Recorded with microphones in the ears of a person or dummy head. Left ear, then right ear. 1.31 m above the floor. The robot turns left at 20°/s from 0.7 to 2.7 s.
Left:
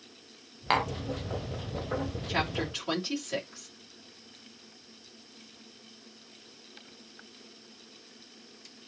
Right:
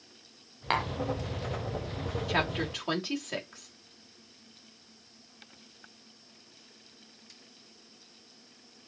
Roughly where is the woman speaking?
Right.